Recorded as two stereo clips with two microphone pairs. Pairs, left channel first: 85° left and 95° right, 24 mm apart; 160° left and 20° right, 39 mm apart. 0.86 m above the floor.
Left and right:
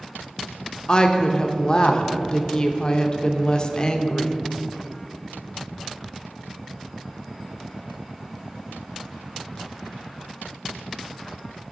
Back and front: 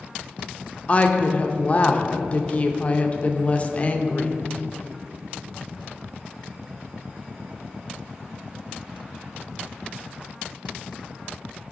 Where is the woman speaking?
125° left, 0.6 m.